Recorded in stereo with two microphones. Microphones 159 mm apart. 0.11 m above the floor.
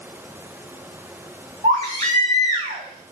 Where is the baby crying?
50° right (ahead or behind), 4 m.